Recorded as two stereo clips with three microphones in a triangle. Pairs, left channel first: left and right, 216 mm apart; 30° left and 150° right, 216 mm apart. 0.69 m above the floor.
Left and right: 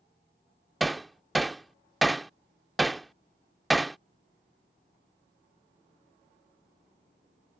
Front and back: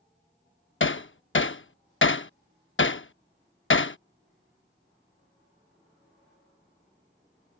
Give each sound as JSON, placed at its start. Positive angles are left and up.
{"t": 0.8, "sound": "hammering", "azimuth_deg": 0}